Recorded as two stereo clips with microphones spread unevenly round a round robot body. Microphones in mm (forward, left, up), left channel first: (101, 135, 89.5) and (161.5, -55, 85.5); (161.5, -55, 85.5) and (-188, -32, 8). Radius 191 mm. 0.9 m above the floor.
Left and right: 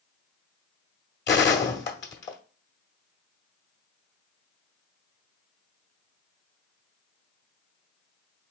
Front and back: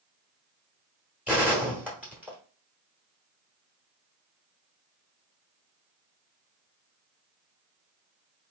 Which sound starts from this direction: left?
A gunshot, at 1.3 s.